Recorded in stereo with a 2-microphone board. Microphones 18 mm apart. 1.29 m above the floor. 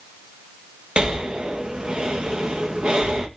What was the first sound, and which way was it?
Breathing, 65° right (ahead or behind).